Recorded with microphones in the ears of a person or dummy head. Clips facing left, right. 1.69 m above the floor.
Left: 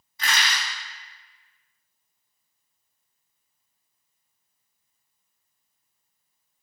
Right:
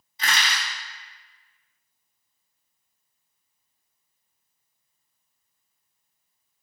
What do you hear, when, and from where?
0.2 s crushing: 25° right (ahead or behind), 1.7 m